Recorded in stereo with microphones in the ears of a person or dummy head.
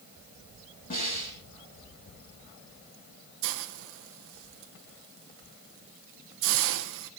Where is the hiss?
65° right (ahead or behind), 1.3 m.